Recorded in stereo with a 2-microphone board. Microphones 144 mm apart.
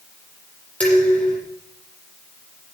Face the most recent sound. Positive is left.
turn(degrees=10)  # may be behind; listen again after turning